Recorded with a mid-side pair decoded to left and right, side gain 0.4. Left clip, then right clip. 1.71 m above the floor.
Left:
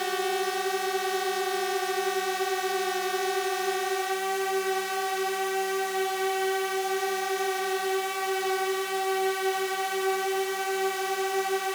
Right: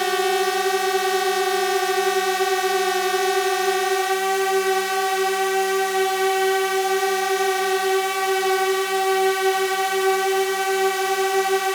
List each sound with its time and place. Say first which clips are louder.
0.0 s a drone: right 8 dB; 60° right